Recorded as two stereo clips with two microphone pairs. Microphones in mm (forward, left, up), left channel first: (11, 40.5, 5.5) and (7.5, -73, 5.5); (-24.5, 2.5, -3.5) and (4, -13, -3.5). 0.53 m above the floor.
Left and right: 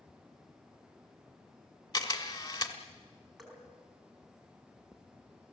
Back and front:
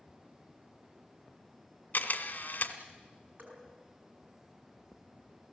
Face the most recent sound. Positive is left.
turn(degrees=0)